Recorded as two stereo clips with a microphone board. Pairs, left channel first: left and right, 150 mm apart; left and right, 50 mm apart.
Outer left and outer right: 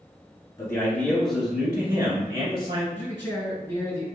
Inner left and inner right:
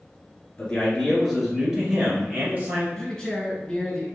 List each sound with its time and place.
0.6 s a man speaking: 20° left (ahead or behind), 1.4 m; by 2.9 s 40° right (ahead or behind), 2 m
3.0 s a man speaking: 15° left (ahead or behind), 1.9 m